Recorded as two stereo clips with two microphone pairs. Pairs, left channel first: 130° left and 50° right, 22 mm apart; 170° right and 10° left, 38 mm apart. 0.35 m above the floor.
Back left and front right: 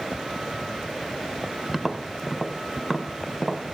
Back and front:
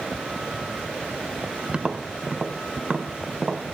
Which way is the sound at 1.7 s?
20° left.